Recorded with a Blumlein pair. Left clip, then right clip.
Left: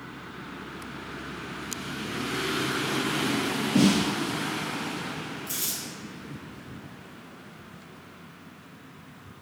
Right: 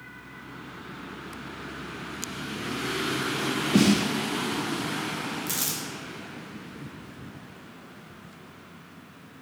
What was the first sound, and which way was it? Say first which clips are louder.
A snare drum: even; 60° right.